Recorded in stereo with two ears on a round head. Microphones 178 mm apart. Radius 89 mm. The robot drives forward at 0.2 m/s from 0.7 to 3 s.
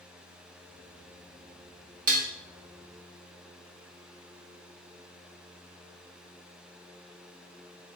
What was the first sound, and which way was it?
Dishes clattering, 40° right (ahead or behind).